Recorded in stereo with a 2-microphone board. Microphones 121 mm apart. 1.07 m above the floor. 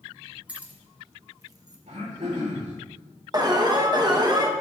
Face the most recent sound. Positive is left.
turn(degrees=-35)  # may be behind; listen again after turning